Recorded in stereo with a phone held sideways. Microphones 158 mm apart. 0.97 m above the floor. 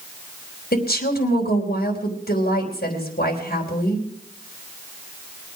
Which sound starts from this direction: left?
A woman speaking, at 0.7 s.